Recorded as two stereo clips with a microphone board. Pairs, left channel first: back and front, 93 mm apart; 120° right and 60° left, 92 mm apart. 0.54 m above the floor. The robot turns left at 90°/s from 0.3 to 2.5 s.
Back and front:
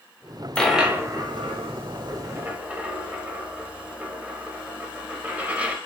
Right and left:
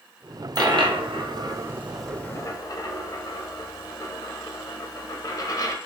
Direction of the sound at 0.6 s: 100° left.